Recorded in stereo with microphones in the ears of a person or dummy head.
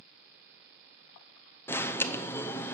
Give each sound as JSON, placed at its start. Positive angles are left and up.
{"t": 1.7, "sound": "an alarm", "side_deg": 10, "distance_m": 0.6}